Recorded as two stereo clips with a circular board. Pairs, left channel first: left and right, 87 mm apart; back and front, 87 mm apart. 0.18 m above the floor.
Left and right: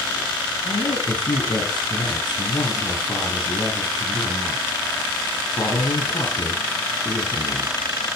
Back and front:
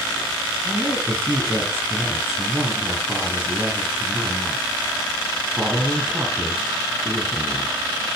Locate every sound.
0.6 s a woman speaking: 60° left, 4 m